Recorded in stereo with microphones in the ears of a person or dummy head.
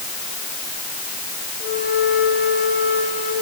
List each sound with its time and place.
1.6 s a flute: 55° left (ahead or behind), 9 m